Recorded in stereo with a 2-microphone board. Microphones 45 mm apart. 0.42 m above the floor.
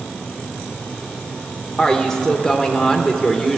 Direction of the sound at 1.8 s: 10° left (ahead or behind).